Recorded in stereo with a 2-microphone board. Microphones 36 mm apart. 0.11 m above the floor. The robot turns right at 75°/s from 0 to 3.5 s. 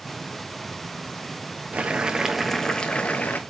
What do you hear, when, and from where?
1.7 s boiling: 55° right, 0.7 m; by 3.4 s 70° left, 0.7 m